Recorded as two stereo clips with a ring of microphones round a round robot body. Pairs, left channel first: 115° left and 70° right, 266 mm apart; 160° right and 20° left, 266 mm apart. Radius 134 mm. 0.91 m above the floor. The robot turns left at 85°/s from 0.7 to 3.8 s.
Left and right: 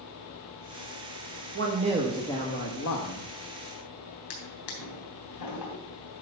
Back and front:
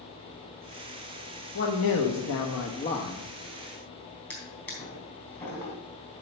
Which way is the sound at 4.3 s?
120° left.